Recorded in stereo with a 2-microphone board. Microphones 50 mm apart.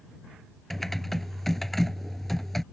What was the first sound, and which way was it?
Typing on a keyboard, 5° left (ahead or behind).